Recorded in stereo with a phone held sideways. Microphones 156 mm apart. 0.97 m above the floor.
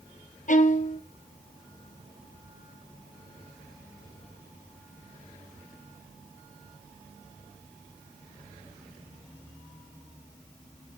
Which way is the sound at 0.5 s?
55° left (ahead or behind).